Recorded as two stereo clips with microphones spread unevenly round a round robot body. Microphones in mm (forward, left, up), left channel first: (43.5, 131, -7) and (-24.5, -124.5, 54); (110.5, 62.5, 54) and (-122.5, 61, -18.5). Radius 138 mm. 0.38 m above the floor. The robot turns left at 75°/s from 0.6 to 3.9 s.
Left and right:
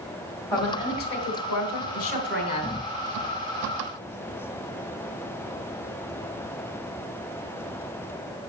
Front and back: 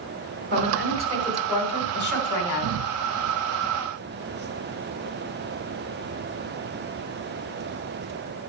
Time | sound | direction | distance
0.5 | a woman speaking | 155° left | 3 m